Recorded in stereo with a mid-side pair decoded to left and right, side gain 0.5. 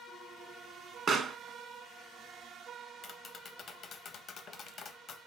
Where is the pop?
40° right, 0.9 m.